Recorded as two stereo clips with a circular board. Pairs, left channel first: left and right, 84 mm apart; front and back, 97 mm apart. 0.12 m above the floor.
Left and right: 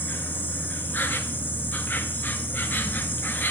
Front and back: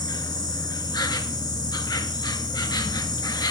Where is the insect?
30° left, 0.7 m.